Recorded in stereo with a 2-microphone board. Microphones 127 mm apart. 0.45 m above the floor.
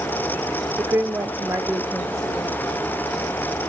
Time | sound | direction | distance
0.8 | a woman speaking | 20° right (ahead or behind) | 0.8 m